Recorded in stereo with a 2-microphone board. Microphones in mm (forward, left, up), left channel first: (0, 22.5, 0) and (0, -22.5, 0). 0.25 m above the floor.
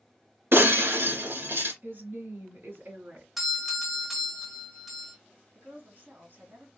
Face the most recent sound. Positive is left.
turn(degrees=-55)  # may be behind; listen again after turning